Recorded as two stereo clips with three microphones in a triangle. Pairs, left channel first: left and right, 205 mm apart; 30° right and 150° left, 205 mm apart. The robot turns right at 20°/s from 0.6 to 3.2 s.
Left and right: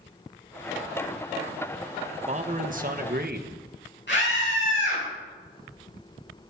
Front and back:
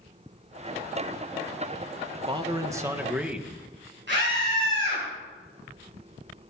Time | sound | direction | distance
2.3 | a man speaking | 145° right | 1.4 m
4.1 | a scream | 120° left | 7.5 m